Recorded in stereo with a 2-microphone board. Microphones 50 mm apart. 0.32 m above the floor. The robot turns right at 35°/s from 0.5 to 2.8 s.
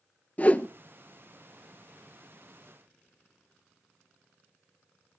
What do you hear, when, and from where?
0.4 s a whoosh: 30° left (ahead or behind), 0.8 m; by 0.7 s 35° left (ahead or behind), 0.8 m